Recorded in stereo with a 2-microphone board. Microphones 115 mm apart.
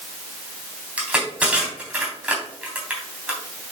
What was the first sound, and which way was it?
Crushing, 10° right (ahead or behind).